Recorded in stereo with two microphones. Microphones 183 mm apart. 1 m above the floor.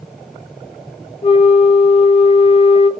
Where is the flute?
30° left (ahead or behind), 1.0 m.